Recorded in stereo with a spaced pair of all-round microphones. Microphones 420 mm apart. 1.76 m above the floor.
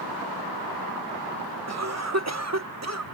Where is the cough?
40° right (ahead or behind).